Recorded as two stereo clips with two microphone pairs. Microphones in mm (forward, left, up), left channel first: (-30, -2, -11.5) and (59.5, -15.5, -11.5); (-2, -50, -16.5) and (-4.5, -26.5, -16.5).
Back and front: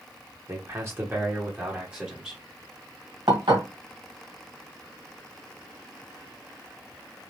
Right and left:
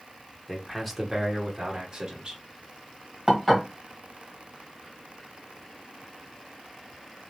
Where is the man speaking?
15° right, 1.0 m; by 2.4 s 65° left, 1.3 m.